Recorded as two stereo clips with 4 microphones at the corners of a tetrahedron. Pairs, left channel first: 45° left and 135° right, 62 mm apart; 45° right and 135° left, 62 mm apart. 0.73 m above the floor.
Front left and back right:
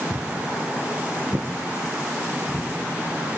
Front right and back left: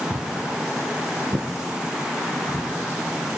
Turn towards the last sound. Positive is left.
turn(degrees=170)